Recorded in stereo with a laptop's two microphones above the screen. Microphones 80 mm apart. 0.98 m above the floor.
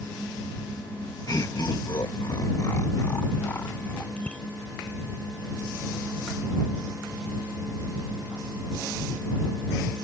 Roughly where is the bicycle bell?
Centre.